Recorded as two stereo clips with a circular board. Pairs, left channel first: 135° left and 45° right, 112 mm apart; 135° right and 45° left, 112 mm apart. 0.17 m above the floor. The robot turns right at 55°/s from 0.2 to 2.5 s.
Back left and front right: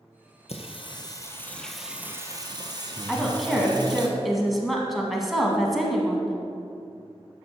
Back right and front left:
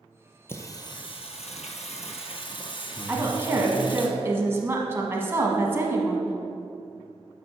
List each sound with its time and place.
0.5 s singing: 155° left, 1.1 m; by 4.1 s 95° right, 1.1 m
3.1 s a woman speaking: 45° left, 1.3 m